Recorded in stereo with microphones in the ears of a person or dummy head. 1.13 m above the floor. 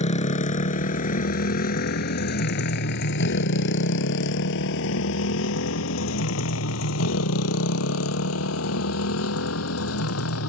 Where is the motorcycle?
35° left (ahead or behind); by 10.5 s 85° left.